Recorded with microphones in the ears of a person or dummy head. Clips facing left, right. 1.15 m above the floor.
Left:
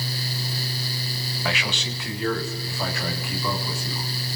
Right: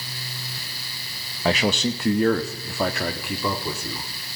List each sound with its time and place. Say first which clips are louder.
1.4 s a man speaking: right 9 dB; 35° right (ahead or behind), 0.8 m; by 4.1 s 55° right (ahead or behind), 3 m